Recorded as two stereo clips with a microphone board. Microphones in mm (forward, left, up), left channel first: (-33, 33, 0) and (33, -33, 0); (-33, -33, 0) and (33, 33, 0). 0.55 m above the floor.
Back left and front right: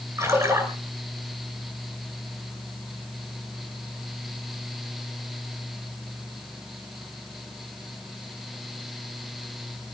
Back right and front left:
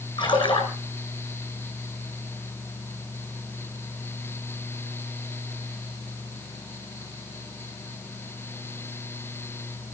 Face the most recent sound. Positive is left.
turn(degrees=-105)